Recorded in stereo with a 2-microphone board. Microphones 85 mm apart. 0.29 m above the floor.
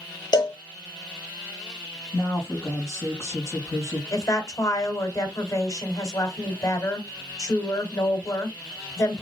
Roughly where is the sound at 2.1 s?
Left.